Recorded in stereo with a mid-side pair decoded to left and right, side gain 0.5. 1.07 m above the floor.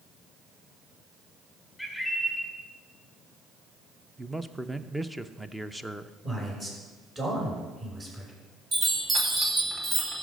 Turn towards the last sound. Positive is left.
turn(degrees=-35)